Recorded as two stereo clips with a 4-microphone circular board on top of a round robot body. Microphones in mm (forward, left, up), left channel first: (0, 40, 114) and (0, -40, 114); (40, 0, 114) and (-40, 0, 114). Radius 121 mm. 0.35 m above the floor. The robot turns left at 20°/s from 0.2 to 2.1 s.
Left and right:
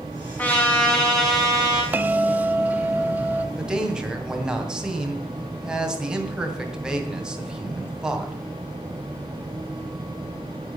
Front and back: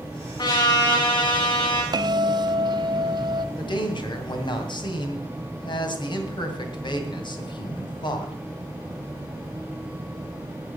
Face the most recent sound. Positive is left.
turn(degrees=-10)